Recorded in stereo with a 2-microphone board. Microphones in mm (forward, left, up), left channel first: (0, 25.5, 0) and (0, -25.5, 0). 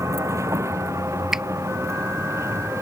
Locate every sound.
0.0 s a vehicle: 75° right (ahead or behind); by 2.8 s 65° right (ahead or behind)
1.3 s a finger snap: 10° right (ahead or behind)